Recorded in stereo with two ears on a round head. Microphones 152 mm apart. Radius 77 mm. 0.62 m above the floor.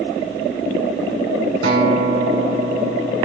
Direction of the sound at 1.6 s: 75° right (ahead or behind).